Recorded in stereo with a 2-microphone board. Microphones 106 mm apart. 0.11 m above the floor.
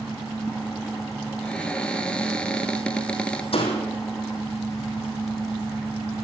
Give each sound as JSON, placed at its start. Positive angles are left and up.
{"t": 0.0, "sound": "an engine running", "side_deg": 0, "distance_m": 1.7}
{"t": 1.4, "sound": "a cupboard door", "side_deg": 10, "distance_m": 1.1}
{"t": 3.5, "sound": "a door slam", "side_deg": 60, "distance_m": 3.0}